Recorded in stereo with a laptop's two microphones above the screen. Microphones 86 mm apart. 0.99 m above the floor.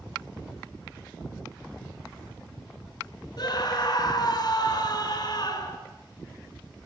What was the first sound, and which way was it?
A scream, 55° left (ahead or behind).